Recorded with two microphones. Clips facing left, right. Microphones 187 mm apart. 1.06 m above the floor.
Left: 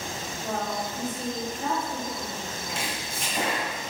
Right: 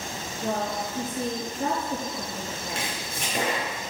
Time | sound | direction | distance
0.4 | a woman speaking | 50° right (ahead or behind) | 1.8 m
2.7 | chopping | 65° right (ahead or behind) | 2.5 m